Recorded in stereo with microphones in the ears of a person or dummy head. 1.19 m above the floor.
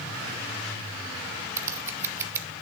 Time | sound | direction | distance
1.6 | scissors | 15° right (ahead or behind) | 0.7 m